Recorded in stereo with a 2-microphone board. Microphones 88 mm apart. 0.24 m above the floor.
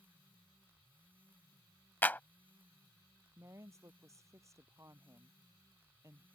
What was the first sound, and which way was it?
A clap, 20° left (ahead or behind).